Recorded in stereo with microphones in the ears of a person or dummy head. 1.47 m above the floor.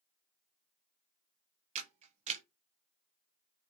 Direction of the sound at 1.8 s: 35° right (ahead or behind).